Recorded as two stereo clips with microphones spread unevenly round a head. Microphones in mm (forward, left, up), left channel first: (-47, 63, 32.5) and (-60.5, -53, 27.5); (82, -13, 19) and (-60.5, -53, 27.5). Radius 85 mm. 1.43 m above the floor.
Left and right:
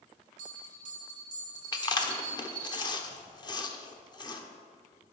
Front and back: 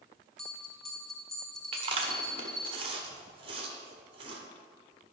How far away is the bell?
About 1.8 m.